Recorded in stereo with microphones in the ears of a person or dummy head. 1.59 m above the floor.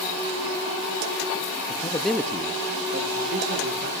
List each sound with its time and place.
1.7 s a man speaking: 40° left (ahead or behind), 0.7 m; by 3.9 s 55° right (ahead or behind), 2 m